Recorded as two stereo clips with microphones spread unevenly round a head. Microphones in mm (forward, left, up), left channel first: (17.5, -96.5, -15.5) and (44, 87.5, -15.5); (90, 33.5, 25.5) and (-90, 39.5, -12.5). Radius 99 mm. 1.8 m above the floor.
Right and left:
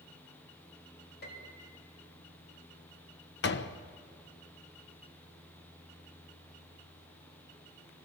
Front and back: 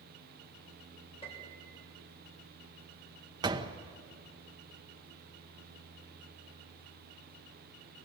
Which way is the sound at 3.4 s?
105° right.